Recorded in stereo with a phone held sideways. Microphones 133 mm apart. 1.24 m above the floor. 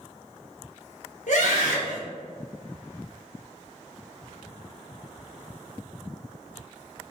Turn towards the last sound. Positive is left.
turn(degrees=70)  # may be behind; listen again after turning